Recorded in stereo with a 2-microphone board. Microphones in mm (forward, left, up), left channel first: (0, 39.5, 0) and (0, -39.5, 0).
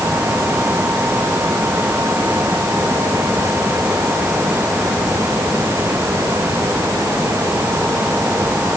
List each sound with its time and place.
Only background noise.